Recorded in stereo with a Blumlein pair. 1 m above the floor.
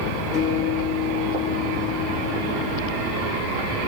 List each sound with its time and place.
0.3 s a guitar: 25° left, 2 m